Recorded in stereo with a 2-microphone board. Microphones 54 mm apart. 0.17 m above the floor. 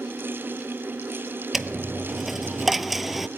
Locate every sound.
1.5 s a dropped coin: 5° right (ahead or behind), 0.7 m